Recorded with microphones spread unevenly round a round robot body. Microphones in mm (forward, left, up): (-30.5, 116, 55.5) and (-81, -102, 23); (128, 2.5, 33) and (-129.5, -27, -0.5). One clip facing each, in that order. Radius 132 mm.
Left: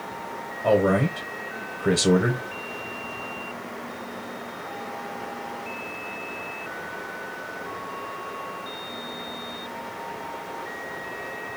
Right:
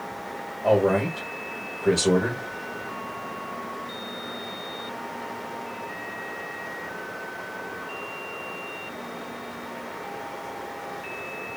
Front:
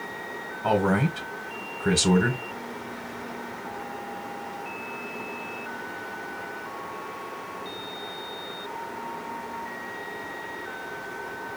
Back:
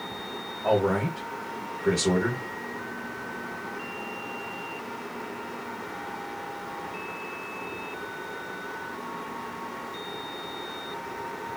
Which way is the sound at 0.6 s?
10° left.